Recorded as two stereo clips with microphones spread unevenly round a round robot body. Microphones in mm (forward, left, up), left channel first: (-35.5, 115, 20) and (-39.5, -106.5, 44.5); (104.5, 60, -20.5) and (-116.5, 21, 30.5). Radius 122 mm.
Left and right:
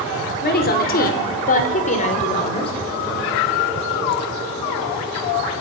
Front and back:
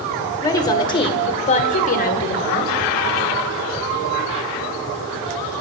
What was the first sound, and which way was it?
A woman speaking, 70° left.